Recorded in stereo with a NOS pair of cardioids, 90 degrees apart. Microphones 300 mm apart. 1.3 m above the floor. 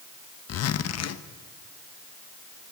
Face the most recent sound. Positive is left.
turn(degrees=55)